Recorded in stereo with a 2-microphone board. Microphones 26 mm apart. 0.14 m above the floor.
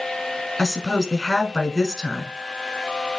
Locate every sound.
0.6 s a woman speaking: 5° left (ahead or behind), 1.2 m